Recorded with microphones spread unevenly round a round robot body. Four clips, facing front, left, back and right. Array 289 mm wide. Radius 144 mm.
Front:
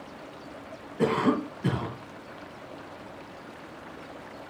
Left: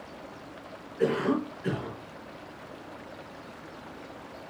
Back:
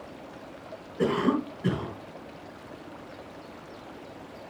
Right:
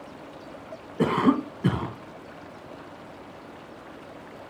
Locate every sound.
1.0 s a cough: 85° right, 2.5 m